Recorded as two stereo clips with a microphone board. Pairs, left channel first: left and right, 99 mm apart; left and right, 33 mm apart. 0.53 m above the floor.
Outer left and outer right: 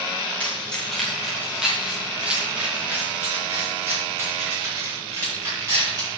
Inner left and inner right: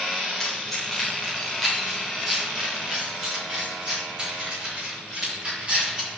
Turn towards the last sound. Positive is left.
turn(degrees=-35)  # may be behind; listen again after turning